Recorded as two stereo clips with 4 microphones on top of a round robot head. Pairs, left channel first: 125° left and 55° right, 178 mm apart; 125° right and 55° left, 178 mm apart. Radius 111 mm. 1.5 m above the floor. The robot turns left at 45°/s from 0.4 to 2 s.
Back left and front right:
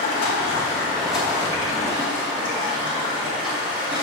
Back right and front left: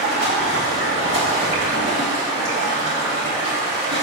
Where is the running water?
65° left, 2.5 m; by 4.0 s 5° right, 2.5 m.